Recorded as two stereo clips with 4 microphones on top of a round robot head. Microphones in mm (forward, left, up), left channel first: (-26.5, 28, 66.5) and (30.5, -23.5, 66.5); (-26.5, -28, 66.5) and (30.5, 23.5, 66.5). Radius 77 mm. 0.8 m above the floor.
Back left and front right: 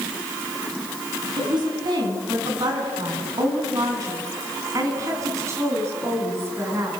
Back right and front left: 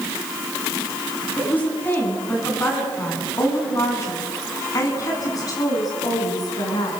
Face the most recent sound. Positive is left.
turn(degrees=-100)